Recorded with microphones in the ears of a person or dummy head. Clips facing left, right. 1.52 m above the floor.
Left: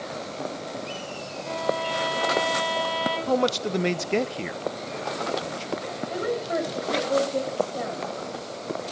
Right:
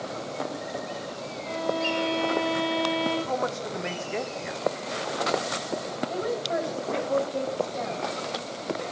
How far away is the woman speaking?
About 3.5 m.